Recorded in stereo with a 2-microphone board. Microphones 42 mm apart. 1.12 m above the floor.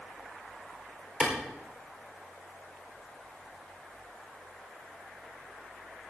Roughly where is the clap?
Right.